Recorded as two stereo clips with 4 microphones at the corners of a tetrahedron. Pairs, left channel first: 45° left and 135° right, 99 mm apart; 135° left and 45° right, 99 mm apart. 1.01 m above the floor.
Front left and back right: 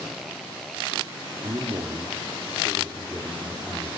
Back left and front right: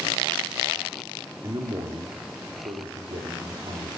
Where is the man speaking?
95° right, 3 m; by 4.0 s 50° right, 4 m.